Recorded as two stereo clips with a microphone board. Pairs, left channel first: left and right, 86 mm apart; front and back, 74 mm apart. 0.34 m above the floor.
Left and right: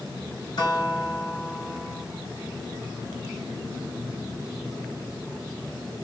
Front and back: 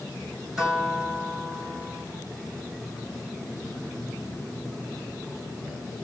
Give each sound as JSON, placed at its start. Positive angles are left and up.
{"t": 0.6, "sound": "a guitar", "azimuth_deg": 95, "distance_m": 2.0}